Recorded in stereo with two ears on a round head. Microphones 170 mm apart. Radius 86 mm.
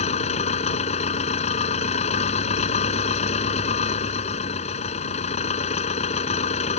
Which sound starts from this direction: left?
An engine running, at 0.0 s.